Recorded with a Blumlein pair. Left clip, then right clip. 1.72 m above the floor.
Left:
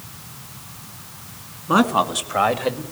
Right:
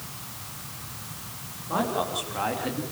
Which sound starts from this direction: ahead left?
A man speaking, at 1.7 s.